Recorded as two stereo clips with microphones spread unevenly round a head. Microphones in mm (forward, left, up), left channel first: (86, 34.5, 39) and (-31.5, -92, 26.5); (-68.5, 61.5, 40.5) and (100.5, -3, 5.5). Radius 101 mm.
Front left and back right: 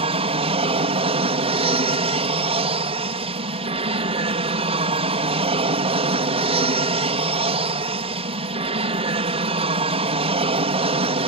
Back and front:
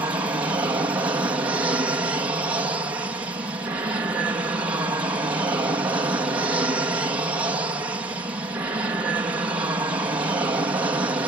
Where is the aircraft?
90° right.